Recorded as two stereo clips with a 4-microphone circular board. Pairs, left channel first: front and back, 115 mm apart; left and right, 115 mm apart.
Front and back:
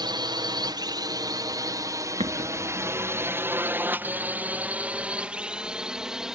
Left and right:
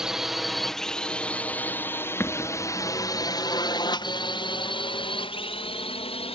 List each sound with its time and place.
0.0 s a drone: 170° right; by 6.4 s 95° left
2.2 s an explosion: 160° left